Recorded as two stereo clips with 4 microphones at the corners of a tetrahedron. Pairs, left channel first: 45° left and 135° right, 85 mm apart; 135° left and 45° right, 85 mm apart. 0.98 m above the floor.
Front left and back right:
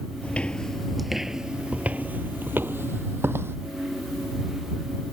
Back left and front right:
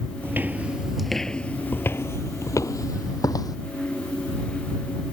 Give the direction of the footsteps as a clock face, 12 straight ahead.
12 o'clock.